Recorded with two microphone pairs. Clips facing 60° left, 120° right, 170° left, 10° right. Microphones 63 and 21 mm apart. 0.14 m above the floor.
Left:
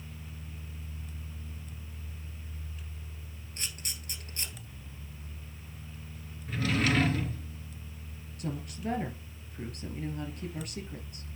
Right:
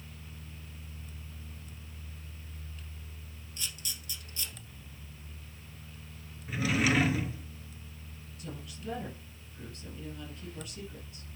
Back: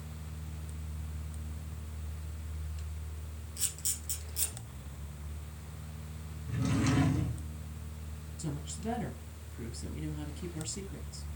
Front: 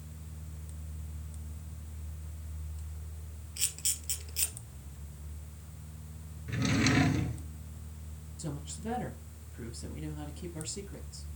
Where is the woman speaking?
75° left, 2.5 m.